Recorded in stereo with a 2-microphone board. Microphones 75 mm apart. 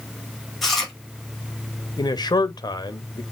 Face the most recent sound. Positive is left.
turn(degrees=75)  # may be behind; listen again after turning